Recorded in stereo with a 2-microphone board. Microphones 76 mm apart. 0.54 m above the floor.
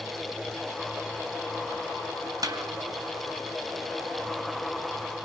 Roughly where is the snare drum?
Right.